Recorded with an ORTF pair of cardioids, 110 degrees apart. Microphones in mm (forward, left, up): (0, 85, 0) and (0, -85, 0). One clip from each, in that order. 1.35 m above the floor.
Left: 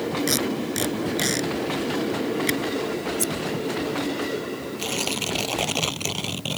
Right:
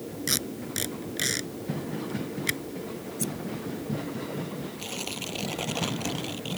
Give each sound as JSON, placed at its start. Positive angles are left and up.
{"t": 0.3, "sound": "tape being pulled", "azimuth_deg": 10}
{"t": 3.2, "sound": "scissors", "azimuth_deg": 35}
{"t": 4.8, "sound": "tearing paper", "azimuth_deg": 45}